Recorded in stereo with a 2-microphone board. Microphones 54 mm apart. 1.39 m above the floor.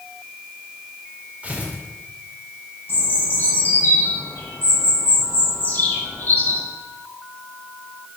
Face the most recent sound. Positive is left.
turn(degrees=40)  # may be behind; listen again after turning